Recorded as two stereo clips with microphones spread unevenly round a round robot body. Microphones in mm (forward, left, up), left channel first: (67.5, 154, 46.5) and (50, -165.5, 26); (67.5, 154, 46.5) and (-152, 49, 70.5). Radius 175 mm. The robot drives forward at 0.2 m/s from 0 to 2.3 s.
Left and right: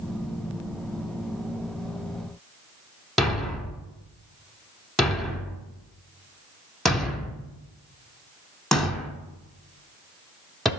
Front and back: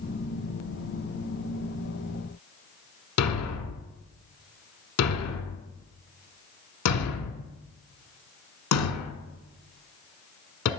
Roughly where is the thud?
Ahead.